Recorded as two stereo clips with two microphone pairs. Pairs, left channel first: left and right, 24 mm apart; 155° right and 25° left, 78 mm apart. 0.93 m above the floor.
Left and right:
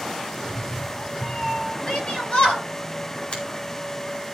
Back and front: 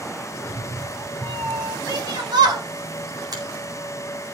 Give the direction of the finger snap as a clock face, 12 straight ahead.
10 o'clock.